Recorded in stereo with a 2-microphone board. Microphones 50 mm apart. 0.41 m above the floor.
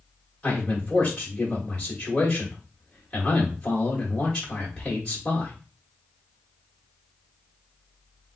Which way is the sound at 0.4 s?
15° left (ahead or behind).